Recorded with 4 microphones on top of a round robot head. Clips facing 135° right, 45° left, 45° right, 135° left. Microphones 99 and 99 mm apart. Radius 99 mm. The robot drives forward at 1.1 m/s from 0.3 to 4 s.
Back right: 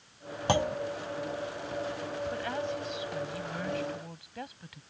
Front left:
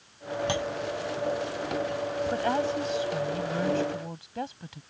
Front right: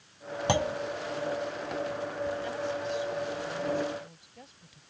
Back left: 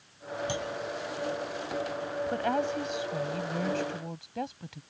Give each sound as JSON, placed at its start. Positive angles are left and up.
{"t": 0.5, "sound": "a clunk", "azimuth_deg": -80}
{"t": 2.3, "sound": "a woman speaking", "azimuth_deg": 100}